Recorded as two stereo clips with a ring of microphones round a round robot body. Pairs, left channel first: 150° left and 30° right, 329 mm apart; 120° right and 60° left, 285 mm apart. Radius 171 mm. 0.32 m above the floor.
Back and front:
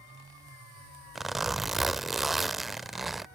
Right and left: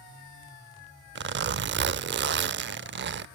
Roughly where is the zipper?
Ahead left.